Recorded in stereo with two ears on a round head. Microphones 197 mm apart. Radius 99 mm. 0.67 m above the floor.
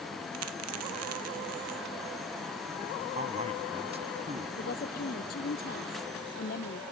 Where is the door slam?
I don't hear a door slam.